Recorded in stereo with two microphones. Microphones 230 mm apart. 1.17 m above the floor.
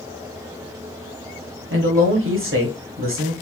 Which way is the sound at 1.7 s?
60° right (ahead or behind).